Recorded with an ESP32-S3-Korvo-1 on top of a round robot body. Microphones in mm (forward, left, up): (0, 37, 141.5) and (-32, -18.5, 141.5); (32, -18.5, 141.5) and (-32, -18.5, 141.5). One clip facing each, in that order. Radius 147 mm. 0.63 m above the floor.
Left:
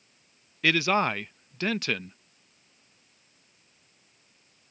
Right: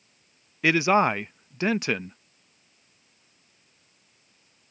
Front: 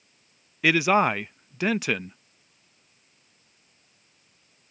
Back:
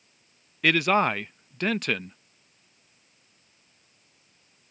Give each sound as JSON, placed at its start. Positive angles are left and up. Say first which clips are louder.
{"t": 0.6, "sound": "a man speaking", "louder": "right 4 dB, front 1 dB", "azimuth_deg": -75}